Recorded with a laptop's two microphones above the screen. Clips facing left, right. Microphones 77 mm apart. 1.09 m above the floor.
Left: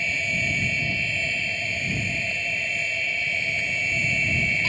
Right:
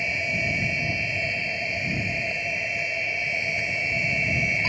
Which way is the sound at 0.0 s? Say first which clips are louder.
Even; 15° right (ahead or behind).